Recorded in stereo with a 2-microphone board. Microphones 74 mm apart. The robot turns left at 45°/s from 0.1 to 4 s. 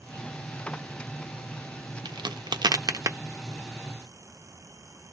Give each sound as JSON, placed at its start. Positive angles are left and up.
{"t": 2.0, "sound": "a crack", "side_deg": -80, "distance_m": 0.6}